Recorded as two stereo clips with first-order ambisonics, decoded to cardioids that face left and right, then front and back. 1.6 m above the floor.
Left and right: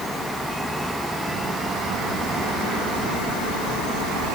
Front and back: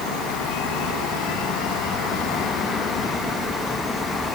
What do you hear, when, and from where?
Only background noise.